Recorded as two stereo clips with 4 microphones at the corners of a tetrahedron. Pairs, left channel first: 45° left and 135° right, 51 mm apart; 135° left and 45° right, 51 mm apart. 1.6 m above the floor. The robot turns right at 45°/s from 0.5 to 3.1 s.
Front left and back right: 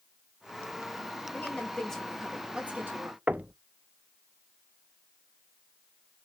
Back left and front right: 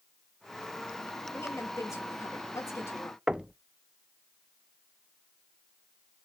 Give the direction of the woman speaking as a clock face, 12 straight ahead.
9 o'clock.